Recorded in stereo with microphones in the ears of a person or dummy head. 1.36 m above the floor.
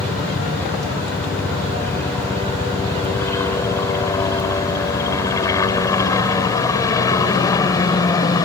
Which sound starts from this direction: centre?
A helicopter, at 0.0 s.